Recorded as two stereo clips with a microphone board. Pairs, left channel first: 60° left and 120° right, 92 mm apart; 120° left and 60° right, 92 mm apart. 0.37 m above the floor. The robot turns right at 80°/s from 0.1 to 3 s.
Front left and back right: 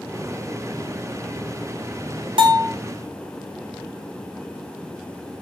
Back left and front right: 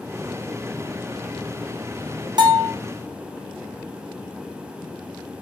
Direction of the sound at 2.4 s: 100° right.